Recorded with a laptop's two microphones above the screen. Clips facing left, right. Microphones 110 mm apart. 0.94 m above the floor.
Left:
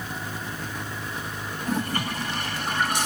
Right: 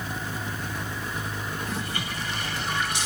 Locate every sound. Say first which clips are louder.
1.6 s a toilet flushing: left 5 dB; 50° left (ahead or behind), 1.1 m